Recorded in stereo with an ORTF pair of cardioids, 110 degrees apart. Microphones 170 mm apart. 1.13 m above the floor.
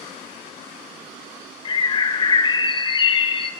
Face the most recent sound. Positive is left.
turn(degrees=30)